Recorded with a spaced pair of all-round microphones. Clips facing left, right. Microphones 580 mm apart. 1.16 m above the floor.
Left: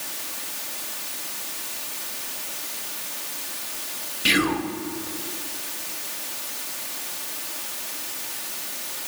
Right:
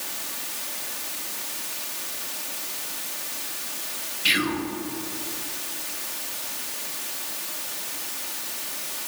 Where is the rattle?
No rattle in this recording.